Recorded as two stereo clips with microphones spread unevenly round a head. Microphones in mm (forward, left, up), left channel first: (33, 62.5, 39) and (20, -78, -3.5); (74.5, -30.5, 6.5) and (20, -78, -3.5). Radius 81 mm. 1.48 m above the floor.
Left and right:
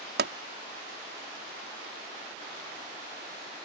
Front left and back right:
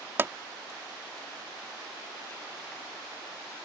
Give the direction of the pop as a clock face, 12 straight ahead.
3 o'clock.